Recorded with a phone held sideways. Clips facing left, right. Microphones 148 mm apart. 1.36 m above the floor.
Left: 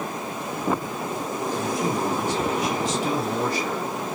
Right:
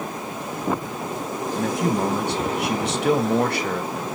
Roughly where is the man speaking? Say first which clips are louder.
Right 4 dB; right.